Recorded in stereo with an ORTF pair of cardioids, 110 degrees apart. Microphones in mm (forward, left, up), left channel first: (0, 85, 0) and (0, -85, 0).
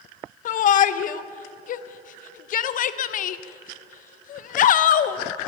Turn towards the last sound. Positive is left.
turn(degrees=50)